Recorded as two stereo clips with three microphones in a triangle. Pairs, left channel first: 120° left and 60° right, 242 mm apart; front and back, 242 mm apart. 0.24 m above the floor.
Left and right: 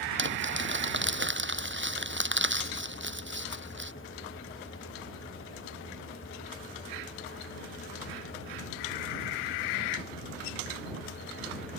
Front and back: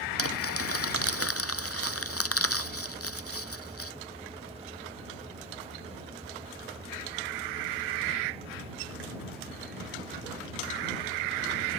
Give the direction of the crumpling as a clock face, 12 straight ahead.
1 o'clock.